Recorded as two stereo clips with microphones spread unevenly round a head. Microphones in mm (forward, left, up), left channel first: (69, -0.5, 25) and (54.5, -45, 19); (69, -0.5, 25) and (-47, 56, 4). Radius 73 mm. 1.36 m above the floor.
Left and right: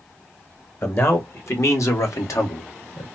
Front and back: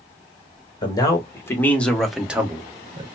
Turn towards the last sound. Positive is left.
turn(degrees=95)